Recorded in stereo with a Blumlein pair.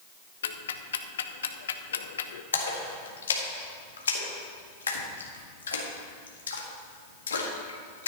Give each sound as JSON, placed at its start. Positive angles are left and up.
{"t": 0.4, "sound": "ticking", "azimuth_deg": 65, "distance_m": 0.7}
{"t": 2.5, "sound": "a splash", "azimuth_deg": 70, "distance_m": 1.7}